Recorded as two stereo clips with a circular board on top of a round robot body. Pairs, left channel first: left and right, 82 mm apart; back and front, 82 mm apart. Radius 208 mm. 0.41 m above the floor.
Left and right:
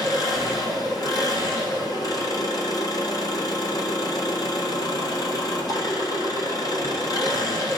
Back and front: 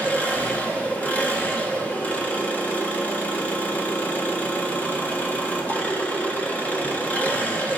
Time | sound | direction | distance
0.0 | an engine running | 115° left | 1.4 m